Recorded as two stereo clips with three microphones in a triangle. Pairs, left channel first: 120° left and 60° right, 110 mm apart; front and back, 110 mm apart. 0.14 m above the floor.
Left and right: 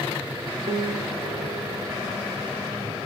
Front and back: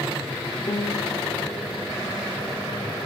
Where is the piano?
55° right, 3 m.